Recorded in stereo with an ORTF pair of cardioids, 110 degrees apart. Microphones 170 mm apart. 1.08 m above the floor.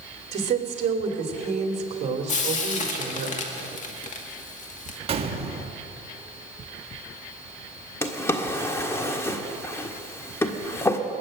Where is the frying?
50° left, 2 m.